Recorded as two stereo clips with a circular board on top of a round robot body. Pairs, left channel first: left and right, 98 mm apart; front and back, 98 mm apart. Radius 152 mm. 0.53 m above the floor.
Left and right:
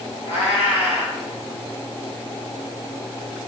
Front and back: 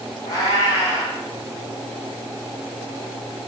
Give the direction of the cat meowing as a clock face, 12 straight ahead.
10 o'clock.